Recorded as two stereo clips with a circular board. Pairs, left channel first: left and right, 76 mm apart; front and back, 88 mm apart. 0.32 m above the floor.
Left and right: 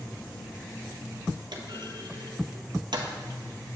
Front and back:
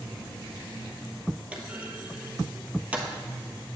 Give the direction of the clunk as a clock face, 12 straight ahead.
4 o'clock.